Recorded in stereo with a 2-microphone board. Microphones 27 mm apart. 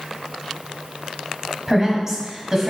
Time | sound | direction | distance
1.7 | a woman speaking | 20° right (ahead or behind) | 1.2 m